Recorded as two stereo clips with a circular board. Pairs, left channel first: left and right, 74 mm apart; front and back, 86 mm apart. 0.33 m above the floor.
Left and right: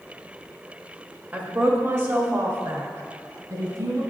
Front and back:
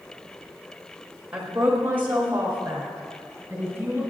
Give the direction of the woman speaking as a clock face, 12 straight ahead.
4 o'clock.